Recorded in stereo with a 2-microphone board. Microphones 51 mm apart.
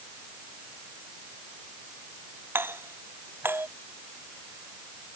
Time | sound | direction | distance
2.5 | a doorbell | 45° right (ahead or behind) | ?